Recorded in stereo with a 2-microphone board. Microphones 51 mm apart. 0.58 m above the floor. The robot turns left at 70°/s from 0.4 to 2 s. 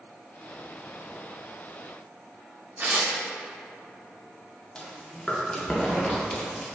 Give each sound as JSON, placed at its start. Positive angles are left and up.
{"t": 2.8, "sound": "tearing paper", "side_deg": -45, "distance_m": 0.9}
{"t": 4.8, "sound": "chewing", "side_deg": 15, "distance_m": 0.5}